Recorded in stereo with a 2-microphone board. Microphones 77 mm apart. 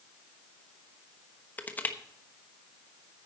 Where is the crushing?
25° left (ahead or behind), 1.0 m.